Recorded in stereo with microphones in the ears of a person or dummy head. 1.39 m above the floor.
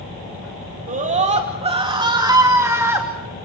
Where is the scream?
40° right (ahead or behind), 2.5 m; by 3.1 s 10° right (ahead or behind), 3 m.